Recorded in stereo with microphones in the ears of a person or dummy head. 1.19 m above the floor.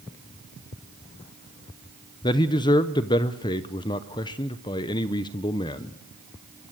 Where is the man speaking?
20° left (ahead or behind), 0.7 m.